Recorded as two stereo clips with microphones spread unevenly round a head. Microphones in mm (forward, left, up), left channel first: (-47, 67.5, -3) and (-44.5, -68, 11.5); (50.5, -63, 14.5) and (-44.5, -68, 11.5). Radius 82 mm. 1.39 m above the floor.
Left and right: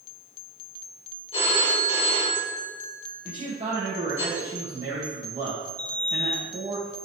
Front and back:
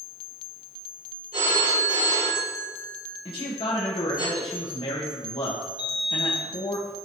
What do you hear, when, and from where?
1.3 s a phone ringing: 140° left, 3 m
3.2 s a man speaking: 25° right, 1.8 m
5.8 s a sliding door: 170° left, 1.2 m